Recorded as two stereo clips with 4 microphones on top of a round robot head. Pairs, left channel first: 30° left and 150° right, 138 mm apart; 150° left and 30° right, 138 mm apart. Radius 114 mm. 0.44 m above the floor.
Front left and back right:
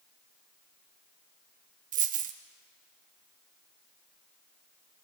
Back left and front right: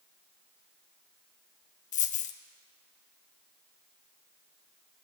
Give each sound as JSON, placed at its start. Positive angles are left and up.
{"t": 1.9, "sound": "a dropped coin", "azimuth_deg": -175, "distance_m": 0.6}